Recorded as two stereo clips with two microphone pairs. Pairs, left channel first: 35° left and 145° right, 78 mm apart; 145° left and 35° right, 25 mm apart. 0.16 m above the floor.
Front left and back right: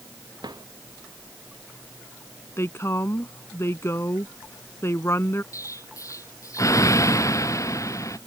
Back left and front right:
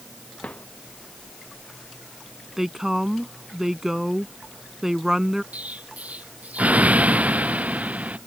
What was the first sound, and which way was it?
A drawer, 175° right.